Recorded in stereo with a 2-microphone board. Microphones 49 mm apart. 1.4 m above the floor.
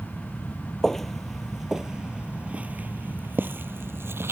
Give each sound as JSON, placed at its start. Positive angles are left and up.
{"t": 0.8, "sound": "footsteps", "side_deg": 5}